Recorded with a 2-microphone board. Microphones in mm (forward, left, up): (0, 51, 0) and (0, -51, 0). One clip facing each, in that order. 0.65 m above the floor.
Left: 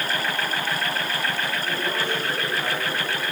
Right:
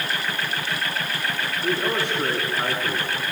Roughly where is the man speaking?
Right.